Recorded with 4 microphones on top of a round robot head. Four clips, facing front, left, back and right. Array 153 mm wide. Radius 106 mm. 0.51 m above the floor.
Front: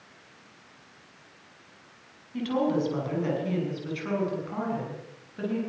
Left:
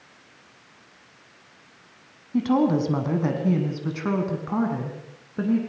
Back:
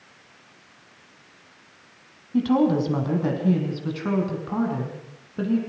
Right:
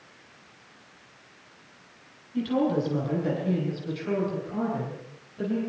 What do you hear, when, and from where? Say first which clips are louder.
2.3 s a woman speaking: left 4 dB, back 6 dB; 125° left, 6 m; by 5.6 s 120° left, 8 m